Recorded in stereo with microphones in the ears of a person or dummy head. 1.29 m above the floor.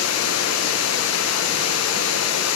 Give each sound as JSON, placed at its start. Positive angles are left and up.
{"t": 0.0, "sound": "running water", "side_deg": 70, "distance_m": 1.0}